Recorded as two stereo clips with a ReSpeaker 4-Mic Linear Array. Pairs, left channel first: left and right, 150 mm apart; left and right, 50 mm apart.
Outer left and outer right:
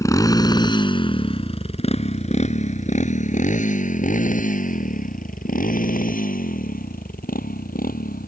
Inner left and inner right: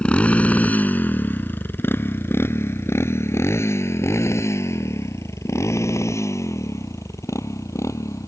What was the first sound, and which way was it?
A motorcycle, 20° left (ahead or behind).